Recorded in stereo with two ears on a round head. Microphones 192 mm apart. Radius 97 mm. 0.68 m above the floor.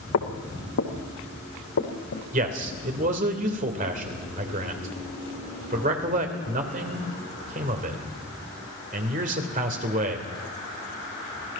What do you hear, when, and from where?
0.1 s footsteps: 75° left (ahead or behind), 2.5 m; by 2.2 s 70° left (ahead or behind), 3 m
2.3 s a man speaking: 35° right (ahead or behind), 2.5 m